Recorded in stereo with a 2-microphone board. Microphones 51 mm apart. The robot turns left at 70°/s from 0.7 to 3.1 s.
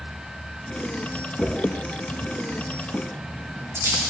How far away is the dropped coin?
About 1.4 m.